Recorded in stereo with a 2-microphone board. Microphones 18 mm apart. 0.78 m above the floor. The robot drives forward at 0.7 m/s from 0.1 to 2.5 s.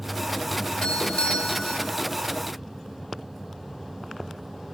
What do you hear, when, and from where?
0.8 s a doorbell: 70° left (ahead or behind), 3 m; by 1.9 s 65° left (ahead or behind), 3.5 m